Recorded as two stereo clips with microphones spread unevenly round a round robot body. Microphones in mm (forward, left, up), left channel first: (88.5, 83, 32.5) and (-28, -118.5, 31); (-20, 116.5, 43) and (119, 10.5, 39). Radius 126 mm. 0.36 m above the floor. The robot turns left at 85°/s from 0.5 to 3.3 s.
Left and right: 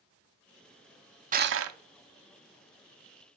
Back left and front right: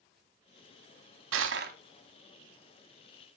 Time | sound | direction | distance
1.3 | crushing | 60° right | 0.7 m